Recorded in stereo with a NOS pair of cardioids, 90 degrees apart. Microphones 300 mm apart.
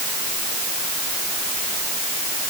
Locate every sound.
Only background noise.